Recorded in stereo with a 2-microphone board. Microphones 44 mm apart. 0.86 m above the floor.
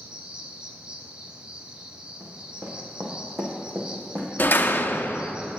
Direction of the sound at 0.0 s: 20° right (ahead or behind).